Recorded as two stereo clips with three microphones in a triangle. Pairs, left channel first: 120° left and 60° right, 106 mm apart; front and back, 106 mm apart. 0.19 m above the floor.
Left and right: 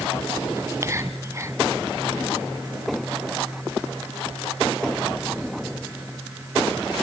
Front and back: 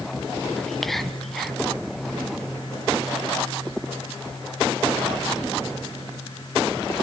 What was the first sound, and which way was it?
Whispering, 85° right.